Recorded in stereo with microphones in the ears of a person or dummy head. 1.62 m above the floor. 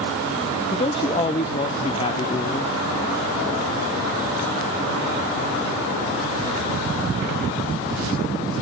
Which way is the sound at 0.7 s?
25° left (ahead or behind).